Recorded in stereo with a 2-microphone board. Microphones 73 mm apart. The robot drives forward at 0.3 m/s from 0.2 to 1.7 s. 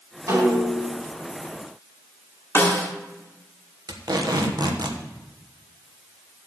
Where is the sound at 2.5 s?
35° left (ahead or behind), 1.5 m.